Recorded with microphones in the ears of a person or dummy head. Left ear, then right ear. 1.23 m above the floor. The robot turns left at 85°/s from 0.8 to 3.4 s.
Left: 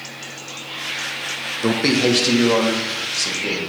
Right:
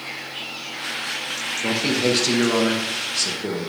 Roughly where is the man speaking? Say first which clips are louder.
Left 4 dB; ahead left.